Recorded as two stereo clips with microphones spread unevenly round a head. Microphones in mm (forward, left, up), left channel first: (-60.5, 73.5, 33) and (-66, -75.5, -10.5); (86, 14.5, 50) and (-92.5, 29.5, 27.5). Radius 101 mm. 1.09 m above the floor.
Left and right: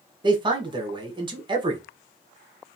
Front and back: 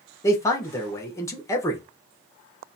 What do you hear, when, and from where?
0.2 s a man speaking: 80° right, 0.8 m